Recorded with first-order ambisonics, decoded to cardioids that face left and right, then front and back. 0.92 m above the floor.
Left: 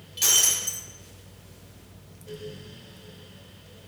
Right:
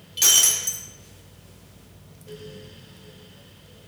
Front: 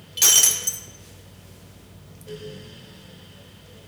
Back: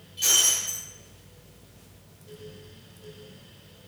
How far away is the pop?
I don't hear a pop.